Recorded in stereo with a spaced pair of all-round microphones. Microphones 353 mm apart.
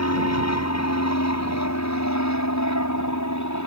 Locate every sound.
0.0 s an aircraft: 45° left (ahead or behind); by 3.7 s 55° left (ahead or behind)